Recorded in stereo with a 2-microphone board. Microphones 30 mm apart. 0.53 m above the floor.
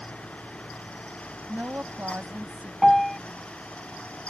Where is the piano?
5° left (ahead or behind).